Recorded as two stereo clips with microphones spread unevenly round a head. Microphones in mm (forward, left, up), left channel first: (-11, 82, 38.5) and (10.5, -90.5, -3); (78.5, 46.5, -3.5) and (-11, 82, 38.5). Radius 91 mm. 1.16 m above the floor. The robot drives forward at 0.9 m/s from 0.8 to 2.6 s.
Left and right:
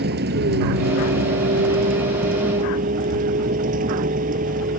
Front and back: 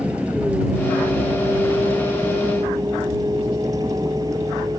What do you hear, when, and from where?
0.0 s a vehicle: 120° right; by 4.8 s 135° right